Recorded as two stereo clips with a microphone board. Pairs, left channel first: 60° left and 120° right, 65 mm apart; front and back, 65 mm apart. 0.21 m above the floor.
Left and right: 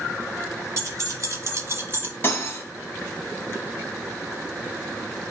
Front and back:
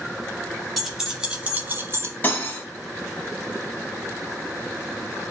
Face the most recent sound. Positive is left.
turn(degrees=40)